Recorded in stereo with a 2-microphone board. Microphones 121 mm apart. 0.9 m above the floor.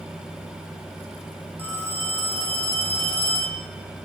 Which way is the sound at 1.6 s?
15° left (ahead or behind).